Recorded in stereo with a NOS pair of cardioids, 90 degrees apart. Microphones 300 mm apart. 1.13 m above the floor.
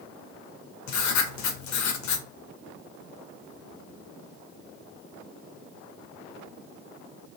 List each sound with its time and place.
0.9 s writing: 70° left, 1.3 m